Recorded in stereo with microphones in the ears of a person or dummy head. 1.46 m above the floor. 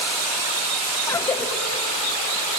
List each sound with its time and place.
1.1 s a cough: 10° left (ahead or behind), 1.0 m